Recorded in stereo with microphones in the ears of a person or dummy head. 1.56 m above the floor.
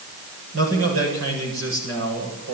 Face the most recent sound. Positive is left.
turn(degrees=-80)